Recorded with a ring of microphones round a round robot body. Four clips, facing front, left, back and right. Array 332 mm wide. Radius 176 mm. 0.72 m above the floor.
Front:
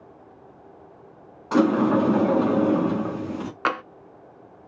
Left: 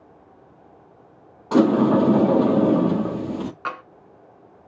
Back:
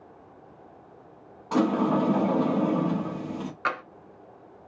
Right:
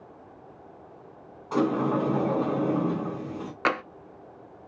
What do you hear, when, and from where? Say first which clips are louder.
1.5 s a sliding door: left 8 dB, front 4 dB; 70° left, 0.8 m
3.6 s tapping: right 4 dB, front 4 dB; 55° right, 0.7 m